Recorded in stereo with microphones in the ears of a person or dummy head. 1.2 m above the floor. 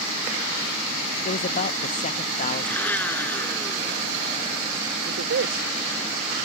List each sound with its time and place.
1.2 s a man speaking: 45° left (ahead or behind)
2.6 s a blender: 10° left (ahead or behind)
5.0 s a woman speaking: 80° right